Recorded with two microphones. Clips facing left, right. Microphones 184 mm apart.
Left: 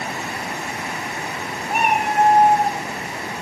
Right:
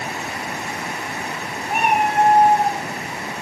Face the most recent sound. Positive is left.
turn(degrees=20)  # may be behind; listen again after turning